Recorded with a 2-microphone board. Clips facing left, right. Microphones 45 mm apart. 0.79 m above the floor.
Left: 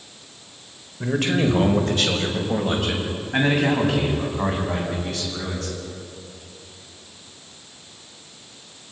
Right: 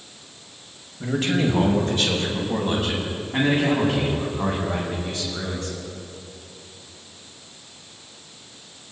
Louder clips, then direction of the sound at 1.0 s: Left 1 dB; 70° left (ahead or behind).